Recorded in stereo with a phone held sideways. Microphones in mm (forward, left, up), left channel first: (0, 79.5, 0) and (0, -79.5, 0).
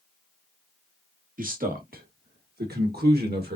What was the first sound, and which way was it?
A man speaking, 60° right (ahead or behind).